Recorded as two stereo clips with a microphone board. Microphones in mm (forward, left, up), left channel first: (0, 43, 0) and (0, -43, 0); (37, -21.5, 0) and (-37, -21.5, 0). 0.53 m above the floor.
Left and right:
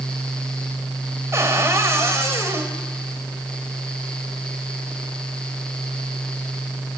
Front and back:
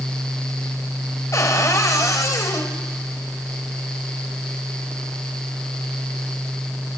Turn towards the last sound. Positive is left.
turn(degrees=-35)